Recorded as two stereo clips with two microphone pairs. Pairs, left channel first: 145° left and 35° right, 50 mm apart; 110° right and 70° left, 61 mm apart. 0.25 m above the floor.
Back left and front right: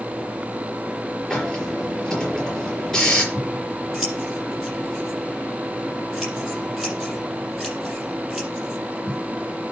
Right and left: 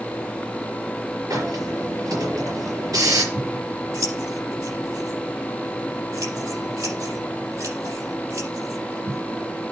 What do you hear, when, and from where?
1.3 s a hiss: 60° left, 5.5 m
3.3 s scissors: 45° left, 7 m